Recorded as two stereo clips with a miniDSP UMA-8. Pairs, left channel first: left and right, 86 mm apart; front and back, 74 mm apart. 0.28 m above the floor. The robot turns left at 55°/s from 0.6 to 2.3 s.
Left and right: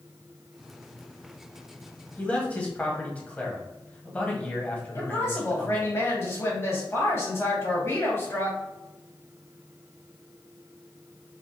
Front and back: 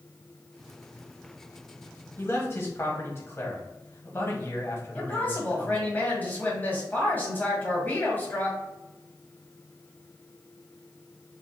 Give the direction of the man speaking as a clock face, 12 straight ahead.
11 o'clock.